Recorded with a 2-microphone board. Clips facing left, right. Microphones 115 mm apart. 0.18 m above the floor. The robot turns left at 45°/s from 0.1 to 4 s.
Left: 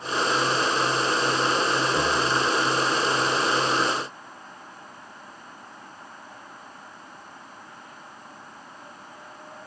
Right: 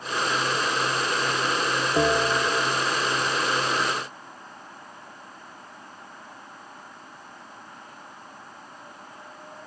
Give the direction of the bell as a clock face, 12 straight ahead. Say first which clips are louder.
Right 2 dB; 3 o'clock.